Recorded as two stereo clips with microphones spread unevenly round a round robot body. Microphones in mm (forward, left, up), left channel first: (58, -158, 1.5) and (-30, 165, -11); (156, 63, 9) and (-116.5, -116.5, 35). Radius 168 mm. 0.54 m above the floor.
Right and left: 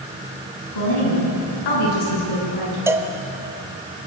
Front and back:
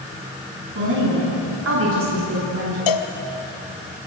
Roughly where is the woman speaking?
Right.